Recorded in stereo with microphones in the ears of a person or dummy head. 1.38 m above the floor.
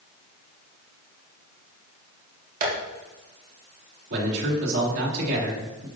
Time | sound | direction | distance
2.6 | tapping | 45° right (ahead or behind) | 2.5 m
4.1 | a man speaking | 60° right (ahead or behind) | 3.5 m